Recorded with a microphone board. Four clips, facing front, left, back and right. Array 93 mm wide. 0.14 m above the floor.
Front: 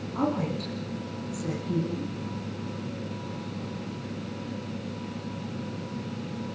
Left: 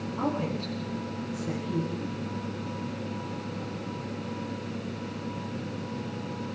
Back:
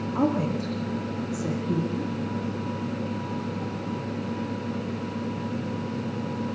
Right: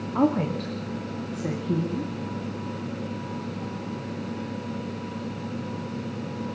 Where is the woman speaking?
115° right, 9.5 m.